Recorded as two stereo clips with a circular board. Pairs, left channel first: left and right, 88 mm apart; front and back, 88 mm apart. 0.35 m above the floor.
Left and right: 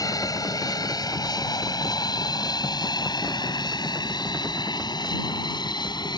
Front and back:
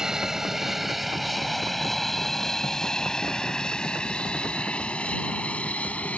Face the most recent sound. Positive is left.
turn(degrees=70)